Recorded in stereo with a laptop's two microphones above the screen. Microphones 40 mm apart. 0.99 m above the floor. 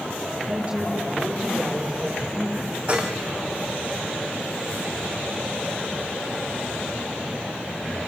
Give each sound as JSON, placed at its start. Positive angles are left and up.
{"t": 0.5, "sound": "a woman speaking", "side_deg": -30, "distance_m": 9.0}
{"t": 2.9, "sound": "dishes clattering", "side_deg": -30, "distance_m": 4.0}